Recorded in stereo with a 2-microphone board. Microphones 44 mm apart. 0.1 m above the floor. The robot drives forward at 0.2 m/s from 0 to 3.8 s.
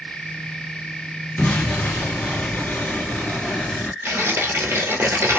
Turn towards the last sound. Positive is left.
turn(degrees=-60)  # may be behind; listen again after turning